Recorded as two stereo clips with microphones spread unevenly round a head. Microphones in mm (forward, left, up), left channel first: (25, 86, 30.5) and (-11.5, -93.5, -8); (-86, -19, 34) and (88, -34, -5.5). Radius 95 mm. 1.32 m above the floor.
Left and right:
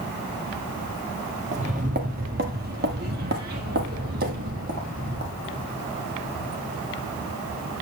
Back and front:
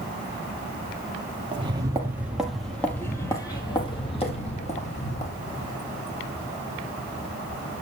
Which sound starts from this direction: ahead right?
Footsteps, at 1.5 s.